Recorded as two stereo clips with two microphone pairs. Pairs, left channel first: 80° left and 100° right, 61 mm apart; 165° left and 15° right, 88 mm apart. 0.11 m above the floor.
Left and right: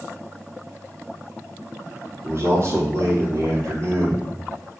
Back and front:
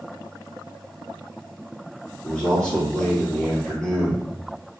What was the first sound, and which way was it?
A man speaking, 115° right.